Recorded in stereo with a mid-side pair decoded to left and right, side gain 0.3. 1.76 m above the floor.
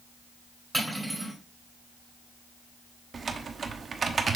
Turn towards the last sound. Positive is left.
turn(degrees=-60)